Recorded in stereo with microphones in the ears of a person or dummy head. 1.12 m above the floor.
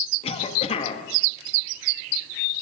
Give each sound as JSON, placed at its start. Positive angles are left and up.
{"t": 0.2, "sound": "a cough", "side_deg": 35, "distance_m": 1.4}